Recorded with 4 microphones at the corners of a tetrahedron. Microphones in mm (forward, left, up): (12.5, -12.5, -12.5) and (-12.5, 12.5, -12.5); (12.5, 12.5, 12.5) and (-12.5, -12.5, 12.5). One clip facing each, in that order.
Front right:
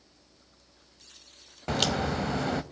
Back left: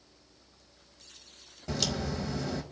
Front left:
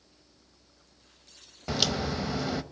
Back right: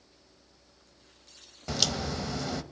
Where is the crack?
30° right, 0.6 m.